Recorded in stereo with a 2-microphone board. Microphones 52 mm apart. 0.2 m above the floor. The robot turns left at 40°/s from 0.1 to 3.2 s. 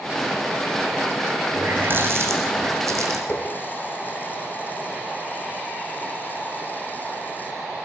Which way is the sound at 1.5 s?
25° right.